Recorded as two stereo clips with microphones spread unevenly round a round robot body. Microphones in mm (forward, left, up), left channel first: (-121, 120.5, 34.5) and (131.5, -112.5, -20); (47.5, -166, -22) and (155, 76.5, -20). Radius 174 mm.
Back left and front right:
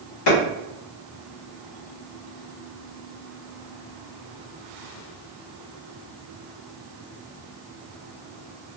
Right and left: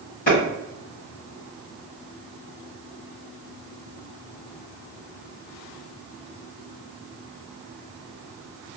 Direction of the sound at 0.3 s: Straight behind.